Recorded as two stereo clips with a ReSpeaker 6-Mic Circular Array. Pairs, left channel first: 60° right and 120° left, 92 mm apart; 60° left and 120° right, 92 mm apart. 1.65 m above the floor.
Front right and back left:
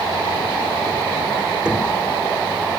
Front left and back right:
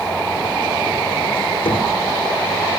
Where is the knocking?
40° left, 4 m.